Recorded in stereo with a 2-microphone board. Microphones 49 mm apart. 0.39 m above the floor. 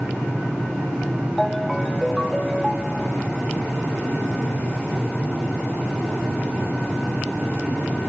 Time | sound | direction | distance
1.4 | a ringtone | centre (ahead or behind) | 1.1 m